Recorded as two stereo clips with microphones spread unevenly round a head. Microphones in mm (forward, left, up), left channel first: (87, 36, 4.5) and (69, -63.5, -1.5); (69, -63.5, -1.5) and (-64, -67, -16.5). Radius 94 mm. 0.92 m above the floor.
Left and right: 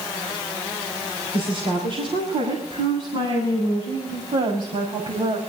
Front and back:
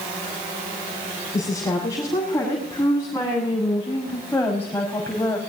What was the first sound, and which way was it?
A woman speaking, 70° right.